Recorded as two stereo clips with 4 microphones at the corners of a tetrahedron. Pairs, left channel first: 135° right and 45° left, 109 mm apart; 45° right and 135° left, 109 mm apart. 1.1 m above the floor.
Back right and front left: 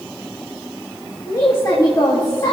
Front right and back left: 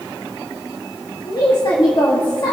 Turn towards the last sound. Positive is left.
turn(degrees=-85)